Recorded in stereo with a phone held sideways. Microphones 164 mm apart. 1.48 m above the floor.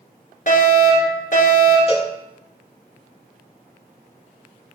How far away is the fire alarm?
About 7 m.